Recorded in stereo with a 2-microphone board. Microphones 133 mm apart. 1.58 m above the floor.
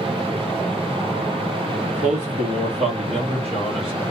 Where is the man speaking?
65° right (ahead or behind), 1.0 m; by 4.0 s 40° right (ahead or behind), 1.7 m.